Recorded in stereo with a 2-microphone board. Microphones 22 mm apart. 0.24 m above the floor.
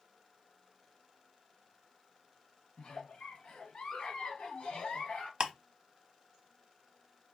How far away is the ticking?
About 0.9 m.